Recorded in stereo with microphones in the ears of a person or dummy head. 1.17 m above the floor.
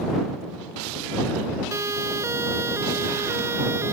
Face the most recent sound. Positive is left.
turn(degrees=-15)  # may be behind; listen again after turning